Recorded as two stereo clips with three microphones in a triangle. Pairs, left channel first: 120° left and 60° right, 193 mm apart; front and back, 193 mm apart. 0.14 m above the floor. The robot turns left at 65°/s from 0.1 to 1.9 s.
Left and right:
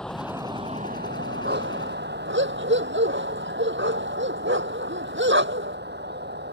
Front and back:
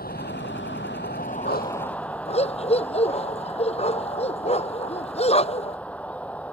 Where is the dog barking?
25° right; by 5.8 s 55° right.